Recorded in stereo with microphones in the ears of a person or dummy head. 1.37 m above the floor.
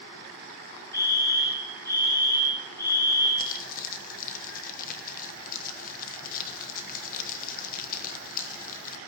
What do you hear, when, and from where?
0.9 s a fire alarm: 15° left (ahead or behind), 7 m
3.4 s crumpling: 50° left (ahead or behind), 1.1 m